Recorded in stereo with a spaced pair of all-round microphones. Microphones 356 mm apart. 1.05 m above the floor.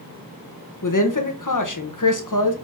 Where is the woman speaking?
55° left (ahead or behind), 0.8 m.